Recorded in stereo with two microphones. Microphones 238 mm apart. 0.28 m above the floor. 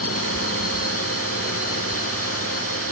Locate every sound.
0.0 s a drone: 75° left (ahead or behind)